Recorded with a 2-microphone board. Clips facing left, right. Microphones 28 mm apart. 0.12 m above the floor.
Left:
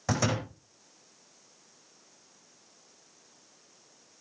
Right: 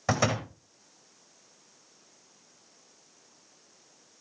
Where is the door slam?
20° right (ahead or behind), 5.5 m.